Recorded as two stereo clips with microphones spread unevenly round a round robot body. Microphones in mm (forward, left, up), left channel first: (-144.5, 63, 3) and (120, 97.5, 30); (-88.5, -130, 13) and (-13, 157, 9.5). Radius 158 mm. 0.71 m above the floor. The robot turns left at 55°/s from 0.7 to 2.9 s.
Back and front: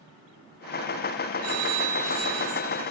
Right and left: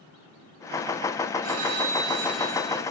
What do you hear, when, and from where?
1.4 s a phone ringing: 40° left, 2.5 m; by 2.8 s 40° right, 2.5 m